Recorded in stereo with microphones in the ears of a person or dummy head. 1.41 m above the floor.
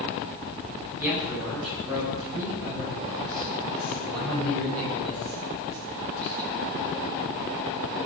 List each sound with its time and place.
1.0 s a man speaking: 5° right (ahead or behind), 6.5 m; by 6.5 s 15° left (ahead or behind), 8 m